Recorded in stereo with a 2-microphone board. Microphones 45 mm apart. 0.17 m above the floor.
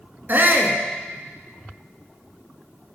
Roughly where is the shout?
Right.